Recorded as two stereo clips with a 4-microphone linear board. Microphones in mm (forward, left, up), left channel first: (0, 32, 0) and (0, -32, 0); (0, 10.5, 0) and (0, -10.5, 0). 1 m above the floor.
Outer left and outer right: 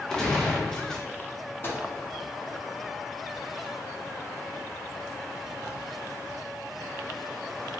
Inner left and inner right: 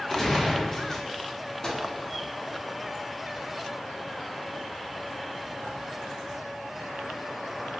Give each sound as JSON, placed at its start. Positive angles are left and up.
{"t": 0.1, "sound": "a gunshot", "side_deg": 10, "distance_m": 0.6}
{"t": 1.6, "sound": "a microwave", "side_deg": 35, "distance_m": 0.7}